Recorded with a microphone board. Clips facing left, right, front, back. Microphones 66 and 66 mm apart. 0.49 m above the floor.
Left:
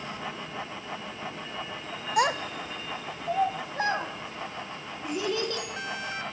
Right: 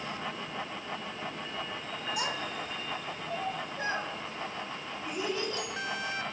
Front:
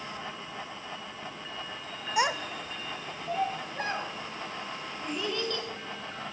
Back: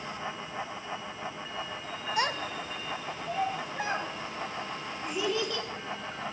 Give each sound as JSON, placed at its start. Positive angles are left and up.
{"t": 2.2, "sound": "a child speaking", "azimuth_deg": 70, "distance_m": 0.7}